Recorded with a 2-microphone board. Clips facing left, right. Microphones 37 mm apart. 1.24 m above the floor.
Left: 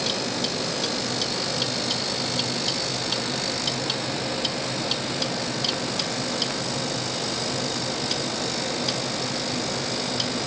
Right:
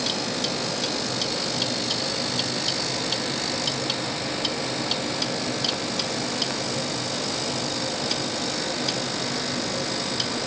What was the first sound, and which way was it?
Only background noise.